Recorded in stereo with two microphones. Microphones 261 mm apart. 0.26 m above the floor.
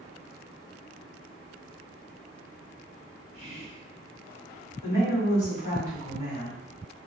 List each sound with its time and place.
3.3 s whispering: 35° left (ahead or behind), 1.1 m
4.8 s a woman speaking: 40° left (ahead or behind), 1.9 m